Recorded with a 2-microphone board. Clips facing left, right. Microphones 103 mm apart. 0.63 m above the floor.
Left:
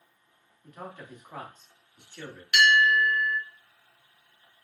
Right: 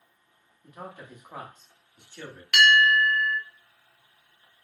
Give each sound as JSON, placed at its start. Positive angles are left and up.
{"t": 0.6, "sound": "a man speaking", "side_deg": -10, "distance_m": 0.9}
{"t": 2.5, "sound": "a bell", "side_deg": -70, "distance_m": 1.1}